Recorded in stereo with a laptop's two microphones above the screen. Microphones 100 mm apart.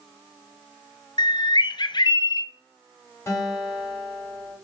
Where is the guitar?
25° left (ahead or behind), 4.5 m.